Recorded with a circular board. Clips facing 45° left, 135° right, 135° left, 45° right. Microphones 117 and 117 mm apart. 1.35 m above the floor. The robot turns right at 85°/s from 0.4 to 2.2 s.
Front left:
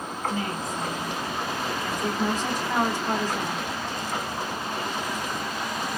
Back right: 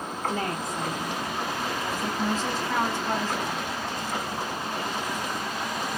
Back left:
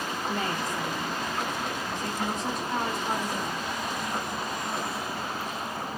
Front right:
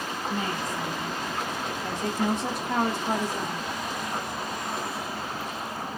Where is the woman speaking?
175° left, 0.9 m; by 3.6 s 30° right, 0.9 m.